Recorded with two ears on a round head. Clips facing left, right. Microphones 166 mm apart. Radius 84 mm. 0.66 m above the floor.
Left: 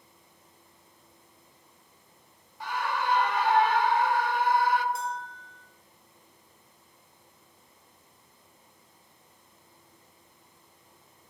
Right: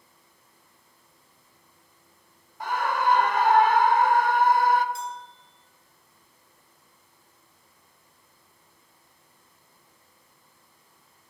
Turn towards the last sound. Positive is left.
turn(degrees=-30)  # may be behind; listen again after turning